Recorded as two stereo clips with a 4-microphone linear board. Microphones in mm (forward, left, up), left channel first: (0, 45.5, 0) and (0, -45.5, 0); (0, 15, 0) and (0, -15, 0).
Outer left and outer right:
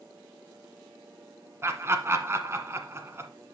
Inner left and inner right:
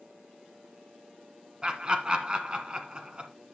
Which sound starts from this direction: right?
Laughter, at 1.6 s.